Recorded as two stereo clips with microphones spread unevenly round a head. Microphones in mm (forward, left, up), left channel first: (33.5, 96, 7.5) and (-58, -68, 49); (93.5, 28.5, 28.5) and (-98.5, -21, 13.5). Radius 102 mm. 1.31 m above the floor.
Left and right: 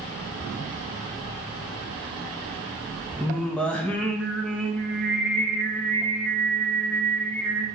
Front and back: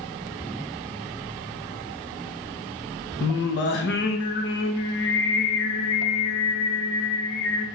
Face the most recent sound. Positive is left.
turn(degrees=-25)